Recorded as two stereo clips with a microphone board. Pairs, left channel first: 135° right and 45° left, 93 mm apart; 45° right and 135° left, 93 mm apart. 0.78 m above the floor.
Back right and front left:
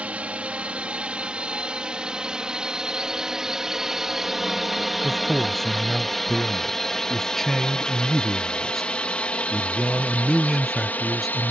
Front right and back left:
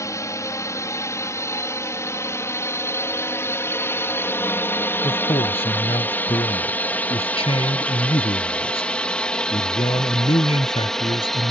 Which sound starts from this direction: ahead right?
A man speaking, at 5.0 s.